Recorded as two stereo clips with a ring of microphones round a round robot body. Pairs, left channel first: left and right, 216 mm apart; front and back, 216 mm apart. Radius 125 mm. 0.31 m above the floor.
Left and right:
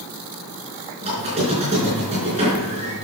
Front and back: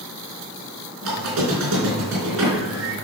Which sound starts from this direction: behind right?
A squeak, at 1.0 s.